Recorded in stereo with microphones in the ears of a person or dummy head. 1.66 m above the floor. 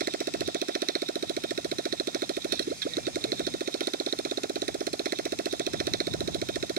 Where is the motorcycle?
50° right (ahead or behind).